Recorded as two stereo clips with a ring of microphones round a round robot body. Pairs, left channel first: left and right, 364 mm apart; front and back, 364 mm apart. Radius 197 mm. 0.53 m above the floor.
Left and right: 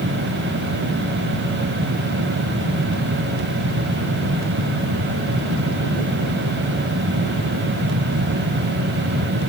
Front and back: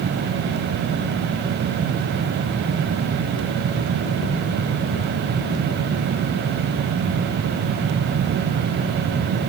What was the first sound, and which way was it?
Only background noise.